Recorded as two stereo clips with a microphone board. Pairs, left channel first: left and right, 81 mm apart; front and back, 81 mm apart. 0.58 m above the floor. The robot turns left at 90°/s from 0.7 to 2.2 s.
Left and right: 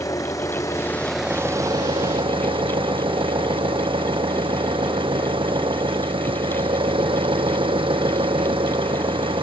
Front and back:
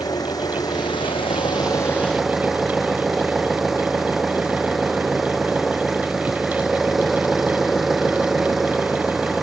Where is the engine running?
40° left; by 9.4 s 95° right.